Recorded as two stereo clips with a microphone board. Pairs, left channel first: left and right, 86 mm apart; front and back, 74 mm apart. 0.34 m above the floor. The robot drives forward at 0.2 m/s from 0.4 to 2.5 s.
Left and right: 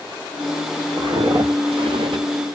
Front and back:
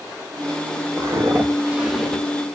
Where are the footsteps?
130° right, 1.3 m; by 2.2 s 75° right, 0.8 m.